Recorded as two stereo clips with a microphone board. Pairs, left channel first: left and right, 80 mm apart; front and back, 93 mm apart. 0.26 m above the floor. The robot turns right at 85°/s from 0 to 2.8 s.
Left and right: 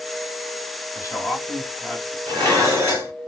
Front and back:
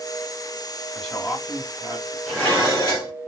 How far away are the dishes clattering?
About 1.7 m.